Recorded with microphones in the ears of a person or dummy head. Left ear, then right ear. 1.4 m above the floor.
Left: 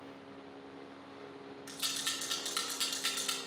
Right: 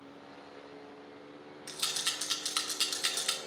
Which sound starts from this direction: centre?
A rattle, at 1.7 s.